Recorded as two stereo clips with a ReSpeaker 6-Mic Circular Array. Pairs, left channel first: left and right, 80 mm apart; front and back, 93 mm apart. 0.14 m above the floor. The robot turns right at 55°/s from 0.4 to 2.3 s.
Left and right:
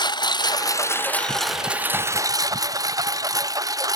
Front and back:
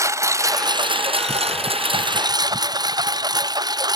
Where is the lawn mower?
120° left; by 4.0 s 135° right.